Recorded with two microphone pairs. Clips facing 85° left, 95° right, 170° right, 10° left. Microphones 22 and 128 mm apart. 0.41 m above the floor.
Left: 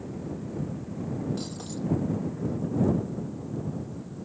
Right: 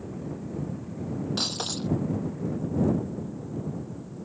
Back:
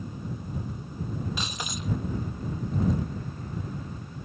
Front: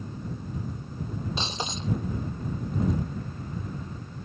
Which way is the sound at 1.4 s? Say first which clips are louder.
Right 5 dB, front 2 dB; 50° right.